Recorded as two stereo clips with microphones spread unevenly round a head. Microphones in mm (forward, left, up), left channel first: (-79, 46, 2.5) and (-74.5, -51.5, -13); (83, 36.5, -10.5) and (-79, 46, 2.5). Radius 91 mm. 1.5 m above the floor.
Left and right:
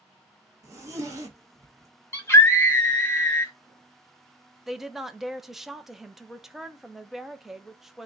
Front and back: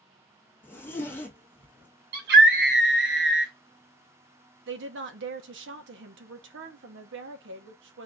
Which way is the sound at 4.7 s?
175° right.